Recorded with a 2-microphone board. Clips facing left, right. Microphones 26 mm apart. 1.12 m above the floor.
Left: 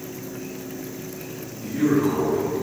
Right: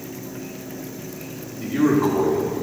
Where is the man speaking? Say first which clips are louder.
Right 2 dB; 50° right (ahead or behind), 2.0 m.